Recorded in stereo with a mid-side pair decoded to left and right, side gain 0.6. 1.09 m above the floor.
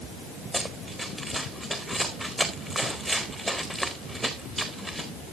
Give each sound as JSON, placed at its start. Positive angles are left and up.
{"t": 0.5, "sound": "running footsteps", "azimuth_deg": -10, "distance_m": 4.5}